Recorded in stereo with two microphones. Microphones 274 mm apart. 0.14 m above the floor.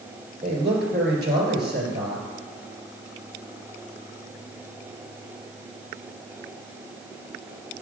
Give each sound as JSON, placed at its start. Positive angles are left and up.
{"t": 0.4, "sound": "a man speaking", "side_deg": -40, "distance_m": 2.5}